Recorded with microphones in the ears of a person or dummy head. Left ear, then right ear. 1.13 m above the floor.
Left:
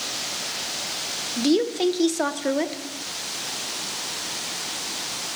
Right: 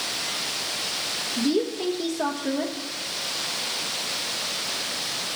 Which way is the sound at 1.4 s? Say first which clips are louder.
Left 5 dB; 50° left (ahead or behind).